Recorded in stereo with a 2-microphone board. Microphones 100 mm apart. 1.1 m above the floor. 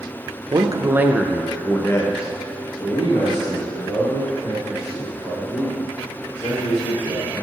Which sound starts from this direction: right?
A man speaking, at 0.5 s.